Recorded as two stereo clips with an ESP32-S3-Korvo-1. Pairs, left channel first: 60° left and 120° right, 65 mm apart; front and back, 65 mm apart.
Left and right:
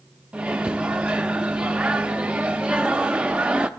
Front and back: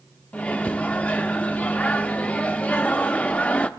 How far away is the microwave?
About 0.6 m.